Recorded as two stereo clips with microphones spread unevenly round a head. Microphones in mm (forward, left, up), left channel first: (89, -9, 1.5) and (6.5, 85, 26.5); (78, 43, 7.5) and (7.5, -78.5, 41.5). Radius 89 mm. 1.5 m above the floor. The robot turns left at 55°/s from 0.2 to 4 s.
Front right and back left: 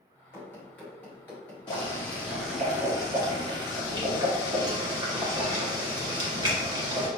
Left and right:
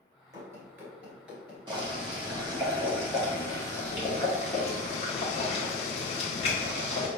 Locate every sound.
0.3 s running footsteps: 130° right, 1.7 m; by 2.1 s 140° right, 1.6 m
1.7 s boiling: 110° right, 1.1 m; by 7.1 s 120° left, 1.1 m